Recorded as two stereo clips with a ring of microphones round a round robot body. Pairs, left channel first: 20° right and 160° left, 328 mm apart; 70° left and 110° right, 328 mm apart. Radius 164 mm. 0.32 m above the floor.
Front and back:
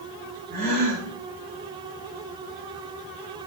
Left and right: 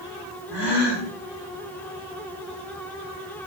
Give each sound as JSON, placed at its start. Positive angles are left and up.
{"t": 0.5, "sound": "a gasp", "azimuth_deg": 95, "distance_m": 6.0}